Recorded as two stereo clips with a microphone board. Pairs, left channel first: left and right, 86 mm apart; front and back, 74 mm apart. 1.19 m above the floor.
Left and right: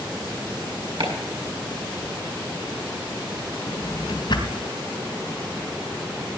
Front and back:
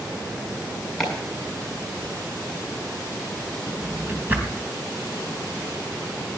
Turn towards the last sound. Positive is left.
turn(degrees=115)